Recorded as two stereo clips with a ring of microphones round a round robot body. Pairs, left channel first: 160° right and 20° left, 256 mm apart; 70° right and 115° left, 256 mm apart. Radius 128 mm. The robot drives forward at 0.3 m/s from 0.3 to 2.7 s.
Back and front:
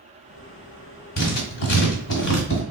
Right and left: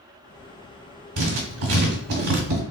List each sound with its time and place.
1.2 s writing: 150° left, 1.4 m; by 2.6 s 155° left, 1.8 m